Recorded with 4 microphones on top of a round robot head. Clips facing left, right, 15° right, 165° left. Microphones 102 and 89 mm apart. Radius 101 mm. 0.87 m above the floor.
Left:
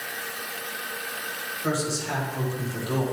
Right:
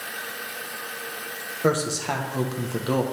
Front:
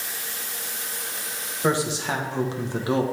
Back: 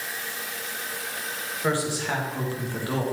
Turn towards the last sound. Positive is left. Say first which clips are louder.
# right 5 dB, front 3 dB
turn(degrees=-80)